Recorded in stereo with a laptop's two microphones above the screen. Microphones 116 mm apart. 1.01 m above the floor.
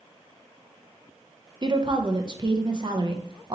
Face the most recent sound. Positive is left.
turn(degrees=-40)  # may be behind; listen again after turning